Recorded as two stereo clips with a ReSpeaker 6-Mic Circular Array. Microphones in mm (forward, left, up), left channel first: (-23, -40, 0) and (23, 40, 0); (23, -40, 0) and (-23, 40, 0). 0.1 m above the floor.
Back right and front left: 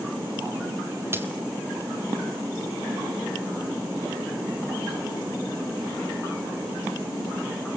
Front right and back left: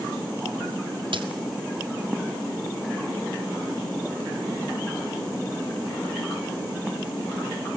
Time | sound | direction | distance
1.1 | a dropped coin | 120° left | 1.6 m